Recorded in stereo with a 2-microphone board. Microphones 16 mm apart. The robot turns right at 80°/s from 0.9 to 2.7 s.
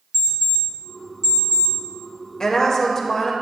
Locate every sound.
0.1 s an alarm clock: 15° right (ahead or behind), 3.5 m; by 1.8 s 80° right, 3.5 m
2.4 s a woman speaking: 45° left (ahead or behind), 1.5 m; by 3.3 s 30° left (ahead or behind), 1.5 m